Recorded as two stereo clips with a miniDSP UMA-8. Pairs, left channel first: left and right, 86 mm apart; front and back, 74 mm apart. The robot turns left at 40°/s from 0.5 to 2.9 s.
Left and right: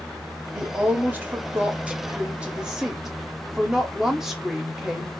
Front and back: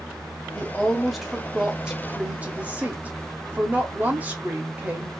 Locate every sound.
0.6 s a woman speaking: 70° right, 1.2 m; by 5.1 s 165° right, 1.2 m